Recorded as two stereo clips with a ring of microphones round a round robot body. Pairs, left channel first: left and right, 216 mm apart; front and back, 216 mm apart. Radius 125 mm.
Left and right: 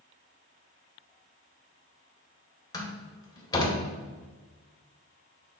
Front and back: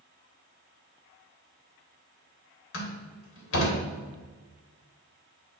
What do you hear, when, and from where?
2.7 s a door slam: 15° left, 1.9 m